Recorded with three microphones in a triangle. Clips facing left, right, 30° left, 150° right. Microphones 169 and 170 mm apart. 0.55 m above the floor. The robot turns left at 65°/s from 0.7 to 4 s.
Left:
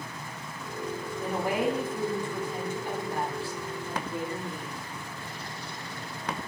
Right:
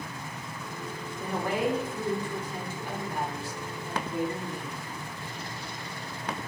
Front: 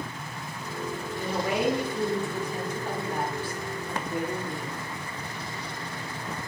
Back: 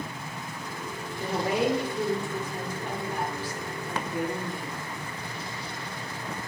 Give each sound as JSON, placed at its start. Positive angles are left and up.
{"t": 1.2, "sound": "a woman speaking", "azimuth_deg": -175, "distance_m": 1.2}